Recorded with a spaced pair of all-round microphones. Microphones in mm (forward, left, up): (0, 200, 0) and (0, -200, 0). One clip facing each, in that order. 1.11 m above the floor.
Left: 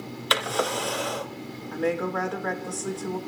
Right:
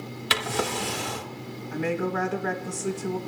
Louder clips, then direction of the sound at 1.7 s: Left 1 dB; 40° right (ahead or behind).